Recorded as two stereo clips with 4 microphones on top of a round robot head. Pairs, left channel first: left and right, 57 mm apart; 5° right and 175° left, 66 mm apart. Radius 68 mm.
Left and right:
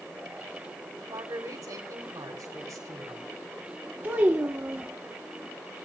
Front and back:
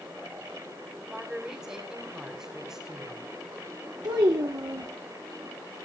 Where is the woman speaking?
105° right, 3.5 m.